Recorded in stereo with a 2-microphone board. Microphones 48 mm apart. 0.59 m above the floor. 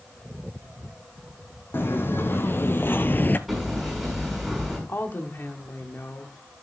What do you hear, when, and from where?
1.7 s footsteps: 50° left (ahead or behind), 1.8 m; by 3.4 s 45° left (ahead or behind), 0.7 m
3.5 s hammering: 5° right (ahead or behind), 6 m
4.9 s a woman speaking: 55° left (ahead or behind), 1.1 m